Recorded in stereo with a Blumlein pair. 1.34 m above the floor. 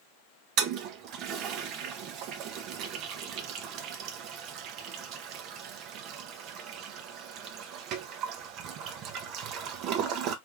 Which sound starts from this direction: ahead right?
A toilet flushing, at 0.6 s.